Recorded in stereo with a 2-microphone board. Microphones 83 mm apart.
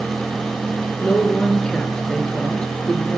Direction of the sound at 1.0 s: 10° left (ahead or behind).